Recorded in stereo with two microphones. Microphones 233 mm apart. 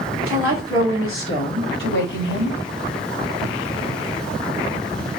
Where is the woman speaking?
70° left (ahead or behind), 3 m; by 2.6 s 50° left (ahead or behind), 3 m.